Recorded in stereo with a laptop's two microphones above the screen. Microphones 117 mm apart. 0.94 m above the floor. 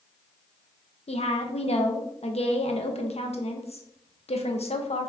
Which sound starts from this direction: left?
A woman speaking, at 1.1 s.